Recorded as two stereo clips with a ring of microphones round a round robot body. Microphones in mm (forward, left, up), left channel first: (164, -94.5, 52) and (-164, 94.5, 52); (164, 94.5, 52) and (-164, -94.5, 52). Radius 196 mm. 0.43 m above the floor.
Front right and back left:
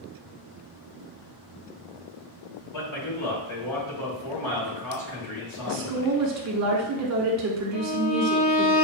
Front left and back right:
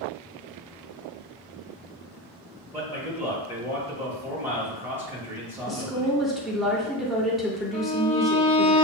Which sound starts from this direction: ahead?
A violin, at 7.7 s.